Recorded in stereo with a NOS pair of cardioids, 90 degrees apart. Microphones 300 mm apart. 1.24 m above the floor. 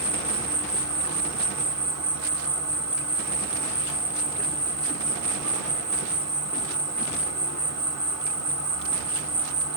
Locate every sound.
0.0 s an insect: 60° right, 1.5 m